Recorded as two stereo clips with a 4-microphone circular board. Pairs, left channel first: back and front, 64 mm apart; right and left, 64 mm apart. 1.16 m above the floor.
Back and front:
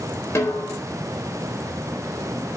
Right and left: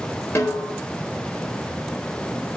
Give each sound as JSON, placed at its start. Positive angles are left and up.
{"t": 0.3, "sound": "a snare drum", "azimuth_deg": -130, "distance_m": 3.5}